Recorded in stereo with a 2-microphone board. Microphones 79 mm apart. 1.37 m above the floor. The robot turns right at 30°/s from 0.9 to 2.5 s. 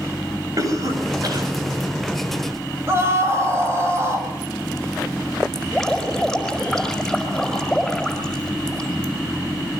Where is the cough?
45° right (ahead or behind), 8.5 m; by 1.5 s 65° right (ahead or behind), 8.5 m.